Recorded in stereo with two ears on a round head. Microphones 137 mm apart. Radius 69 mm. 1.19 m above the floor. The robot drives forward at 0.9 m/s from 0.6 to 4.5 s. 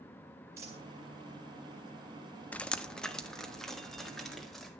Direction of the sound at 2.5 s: 10° left (ahead or behind).